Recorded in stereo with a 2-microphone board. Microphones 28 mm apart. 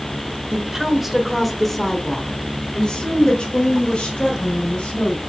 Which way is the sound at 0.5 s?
15° right (ahead or behind).